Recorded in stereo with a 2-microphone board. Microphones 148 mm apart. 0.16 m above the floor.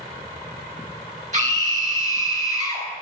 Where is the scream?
50° right (ahead or behind), 3 m.